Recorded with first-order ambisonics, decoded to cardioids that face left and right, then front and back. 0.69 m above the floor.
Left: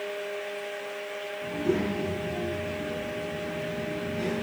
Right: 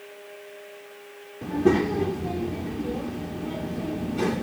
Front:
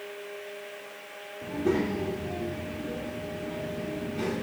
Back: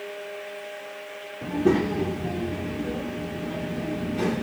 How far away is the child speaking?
About 0.5 m.